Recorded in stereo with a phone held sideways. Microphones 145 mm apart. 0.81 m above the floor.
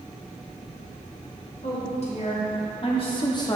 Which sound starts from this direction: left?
A woman speaking, at 1.6 s.